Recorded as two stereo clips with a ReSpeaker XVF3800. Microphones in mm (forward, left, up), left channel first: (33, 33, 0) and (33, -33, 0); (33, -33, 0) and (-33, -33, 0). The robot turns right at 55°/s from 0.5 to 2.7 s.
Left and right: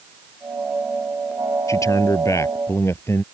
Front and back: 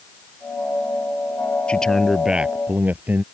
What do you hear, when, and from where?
1.7 s a man speaking: 65° left; by 3.2 s 125° left